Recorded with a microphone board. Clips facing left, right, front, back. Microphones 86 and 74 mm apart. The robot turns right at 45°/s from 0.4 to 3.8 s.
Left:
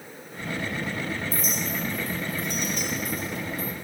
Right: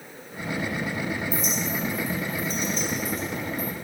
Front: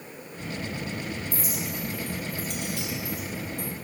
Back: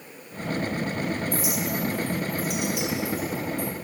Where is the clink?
45° left, 4 m; by 3.7 s 150° left, 4 m.